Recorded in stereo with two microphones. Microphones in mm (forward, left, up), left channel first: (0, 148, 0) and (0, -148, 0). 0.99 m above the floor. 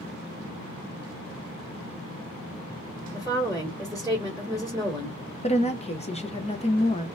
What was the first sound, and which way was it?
A woman speaking, 10° right (ahead or behind).